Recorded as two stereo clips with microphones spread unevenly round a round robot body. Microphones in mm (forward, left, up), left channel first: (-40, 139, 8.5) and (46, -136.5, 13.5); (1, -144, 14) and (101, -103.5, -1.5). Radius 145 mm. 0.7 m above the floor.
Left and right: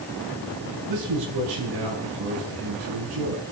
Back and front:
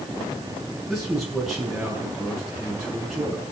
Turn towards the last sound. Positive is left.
turn(degrees=-65)